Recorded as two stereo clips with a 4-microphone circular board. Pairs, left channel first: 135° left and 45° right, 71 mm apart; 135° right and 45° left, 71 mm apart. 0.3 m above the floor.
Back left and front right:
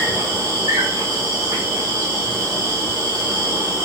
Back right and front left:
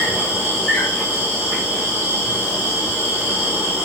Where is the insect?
20° right, 2.5 m.